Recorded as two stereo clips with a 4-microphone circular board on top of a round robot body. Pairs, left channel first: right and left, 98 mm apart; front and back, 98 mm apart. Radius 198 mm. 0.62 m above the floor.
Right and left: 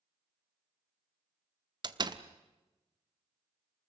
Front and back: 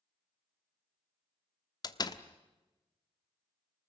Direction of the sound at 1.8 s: 45° left.